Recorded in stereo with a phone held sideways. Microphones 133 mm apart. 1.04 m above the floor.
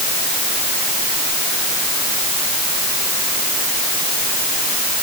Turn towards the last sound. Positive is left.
No sound to turn to.